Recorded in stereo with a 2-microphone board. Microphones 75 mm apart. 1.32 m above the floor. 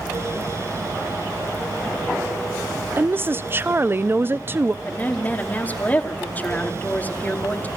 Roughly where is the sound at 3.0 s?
Right.